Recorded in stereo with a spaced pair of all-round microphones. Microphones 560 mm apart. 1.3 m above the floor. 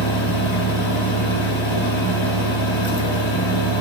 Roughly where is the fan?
Left.